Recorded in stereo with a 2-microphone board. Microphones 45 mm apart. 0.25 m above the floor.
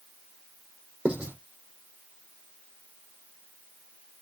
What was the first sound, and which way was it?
Writing, 25° right (ahead or behind).